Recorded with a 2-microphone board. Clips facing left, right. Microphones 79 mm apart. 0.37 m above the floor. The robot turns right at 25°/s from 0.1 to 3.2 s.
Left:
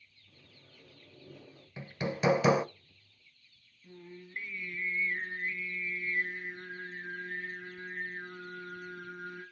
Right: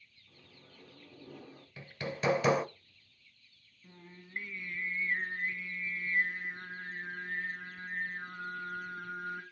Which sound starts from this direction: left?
Hammering, at 1.8 s.